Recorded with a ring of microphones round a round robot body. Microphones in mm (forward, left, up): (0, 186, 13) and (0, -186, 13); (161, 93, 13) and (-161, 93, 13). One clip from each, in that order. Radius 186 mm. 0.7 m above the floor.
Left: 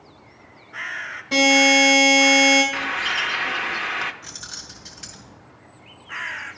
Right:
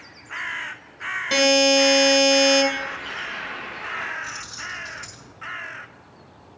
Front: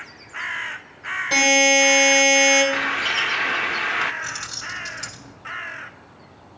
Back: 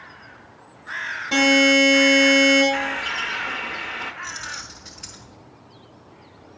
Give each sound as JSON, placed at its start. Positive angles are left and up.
{"t": 1.3, "sound": "a buzzer", "azimuth_deg": -55, "distance_m": 2.5}
{"t": 2.7, "sound": "a bird", "azimuth_deg": 45, "distance_m": 0.7}
{"t": 4.2, "sound": "keys jangling", "azimuth_deg": 5, "distance_m": 2.5}